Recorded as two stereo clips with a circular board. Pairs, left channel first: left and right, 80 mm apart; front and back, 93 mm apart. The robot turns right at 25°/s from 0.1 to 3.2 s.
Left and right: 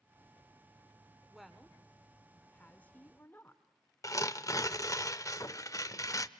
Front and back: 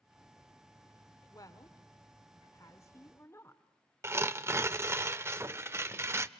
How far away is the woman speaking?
About 1.5 m.